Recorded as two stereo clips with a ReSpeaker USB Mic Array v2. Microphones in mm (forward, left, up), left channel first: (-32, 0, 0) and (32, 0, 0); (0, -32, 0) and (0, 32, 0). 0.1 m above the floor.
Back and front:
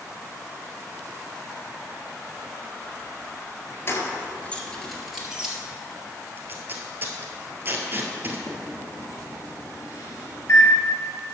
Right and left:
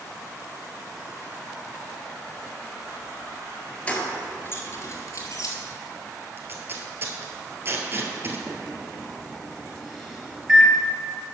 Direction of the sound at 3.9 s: 155° right.